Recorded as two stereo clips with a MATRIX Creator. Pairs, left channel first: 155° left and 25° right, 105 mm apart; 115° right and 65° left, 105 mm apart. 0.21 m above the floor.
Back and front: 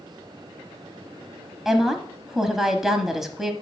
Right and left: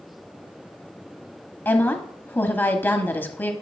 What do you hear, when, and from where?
1.6 s a woman speaking: 100° right, 1.0 m